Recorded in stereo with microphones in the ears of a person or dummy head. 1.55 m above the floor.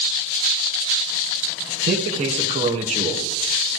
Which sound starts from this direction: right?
A man speaking, at 1.8 s.